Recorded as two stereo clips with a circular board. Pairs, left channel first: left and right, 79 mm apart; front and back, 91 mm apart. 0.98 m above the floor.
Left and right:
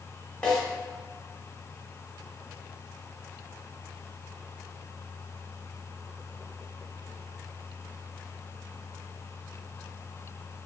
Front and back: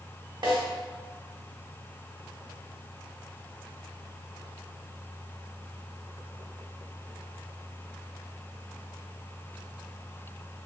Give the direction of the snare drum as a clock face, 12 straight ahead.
7 o'clock.